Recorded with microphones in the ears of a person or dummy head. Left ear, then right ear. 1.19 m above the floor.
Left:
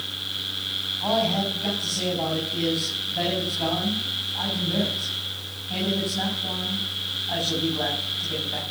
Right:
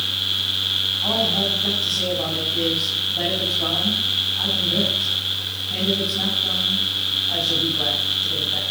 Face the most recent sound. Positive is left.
turn(degrees=50)  # may be behind; listen again after turning